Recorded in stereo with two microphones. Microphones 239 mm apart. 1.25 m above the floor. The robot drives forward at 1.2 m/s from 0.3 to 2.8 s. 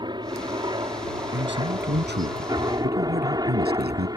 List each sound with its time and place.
0.0 s a helicopter: 20° right (ahead or behind); by 4.2 s 15° right (ahead or behind)
1.3 s a man speaking: 50° right (ahead or behind); by 4.1 s 40° right (ahead or behind)